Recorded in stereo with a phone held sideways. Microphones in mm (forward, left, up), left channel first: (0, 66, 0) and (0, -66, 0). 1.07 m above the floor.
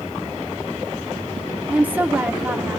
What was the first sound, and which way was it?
A woman speaking, 10° right (ahead or behind).